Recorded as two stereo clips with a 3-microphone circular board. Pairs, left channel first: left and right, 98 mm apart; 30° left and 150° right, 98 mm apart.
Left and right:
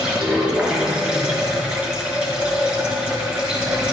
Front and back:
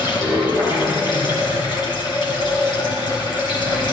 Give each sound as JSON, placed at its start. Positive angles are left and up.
{"t": 0.0, "sound": "running water", "azimuth_deg": -10, "distance_m": 3.0}